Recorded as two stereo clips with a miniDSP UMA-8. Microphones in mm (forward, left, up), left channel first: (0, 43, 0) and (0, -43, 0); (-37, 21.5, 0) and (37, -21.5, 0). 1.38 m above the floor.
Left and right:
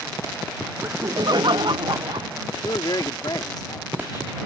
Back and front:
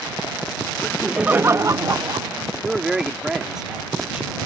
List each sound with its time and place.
0.8 s laughter: 150° right; by 2.5 s 65° right
2.6 s a man speaking: 55° left